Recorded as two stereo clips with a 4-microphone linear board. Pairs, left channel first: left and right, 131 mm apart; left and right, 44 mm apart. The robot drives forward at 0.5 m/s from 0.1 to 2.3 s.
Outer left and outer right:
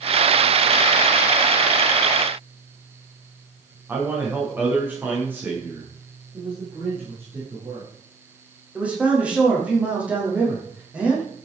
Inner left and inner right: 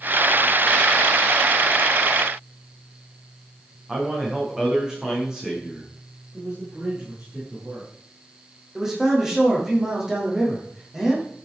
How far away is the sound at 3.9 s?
About 7.5 m.